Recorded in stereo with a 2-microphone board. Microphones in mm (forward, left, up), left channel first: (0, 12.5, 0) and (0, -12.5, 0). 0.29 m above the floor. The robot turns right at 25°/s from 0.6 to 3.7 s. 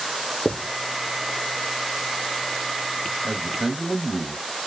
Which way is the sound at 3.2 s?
10° right (ahead or behind).